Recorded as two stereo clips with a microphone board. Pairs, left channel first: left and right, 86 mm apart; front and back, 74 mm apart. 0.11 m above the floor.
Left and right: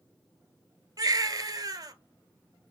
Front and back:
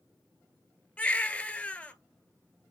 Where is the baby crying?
70° right, 0.5 m.